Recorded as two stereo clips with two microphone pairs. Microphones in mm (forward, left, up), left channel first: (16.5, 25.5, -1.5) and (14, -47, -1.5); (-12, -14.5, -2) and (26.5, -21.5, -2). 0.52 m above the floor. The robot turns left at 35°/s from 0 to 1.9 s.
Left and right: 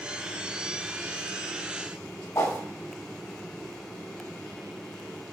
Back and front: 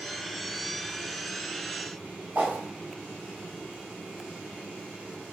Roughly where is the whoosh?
Ahead left.